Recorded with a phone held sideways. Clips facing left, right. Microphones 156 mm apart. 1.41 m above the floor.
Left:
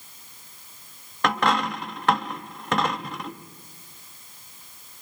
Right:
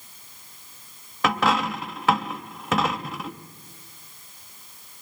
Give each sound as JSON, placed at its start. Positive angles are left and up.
{"t": 1.2, "sound": "a dropped coin", "side_deg": -5, "distance_m": 0.8}